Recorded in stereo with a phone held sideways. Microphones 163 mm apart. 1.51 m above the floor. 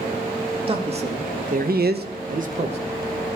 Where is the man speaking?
35° right (ahead or behind), 2.5 m.